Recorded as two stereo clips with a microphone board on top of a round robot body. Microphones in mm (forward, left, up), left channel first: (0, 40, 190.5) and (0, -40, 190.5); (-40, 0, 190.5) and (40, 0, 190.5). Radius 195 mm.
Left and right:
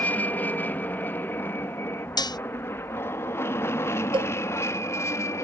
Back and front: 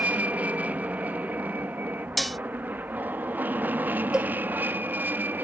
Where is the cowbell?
80° right.